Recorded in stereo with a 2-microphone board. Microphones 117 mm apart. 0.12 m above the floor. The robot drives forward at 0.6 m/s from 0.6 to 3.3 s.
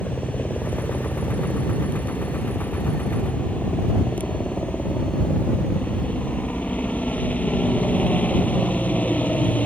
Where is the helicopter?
15° left (ahead or behind).